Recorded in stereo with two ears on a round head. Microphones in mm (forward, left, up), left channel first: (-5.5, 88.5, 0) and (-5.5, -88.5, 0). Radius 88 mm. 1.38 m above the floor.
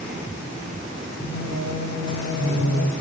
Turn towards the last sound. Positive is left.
turn(degrees=30)  # may be behind; listen again after turning